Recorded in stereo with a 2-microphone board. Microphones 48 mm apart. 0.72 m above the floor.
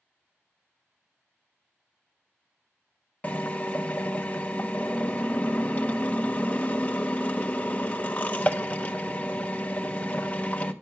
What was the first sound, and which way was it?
A drill, 30° left (ahead or behind).